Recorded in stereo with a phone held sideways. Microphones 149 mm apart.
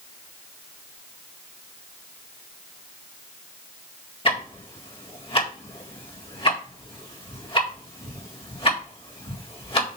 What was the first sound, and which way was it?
Ticking, 40° left (ahead or behind).